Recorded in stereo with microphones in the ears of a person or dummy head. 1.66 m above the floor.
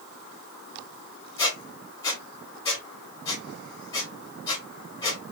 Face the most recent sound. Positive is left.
turn(degrees=15)  # may be behind; listen again after turning